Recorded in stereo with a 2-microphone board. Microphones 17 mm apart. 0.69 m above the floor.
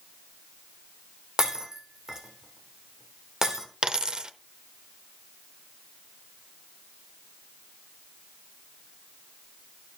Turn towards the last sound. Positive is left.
turn(degrees=-55)  # may be behind; listen again after turning